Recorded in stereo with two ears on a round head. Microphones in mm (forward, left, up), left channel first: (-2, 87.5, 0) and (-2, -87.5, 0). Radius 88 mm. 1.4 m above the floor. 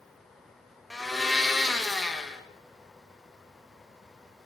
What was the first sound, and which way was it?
A blender, centre (ahead or behind).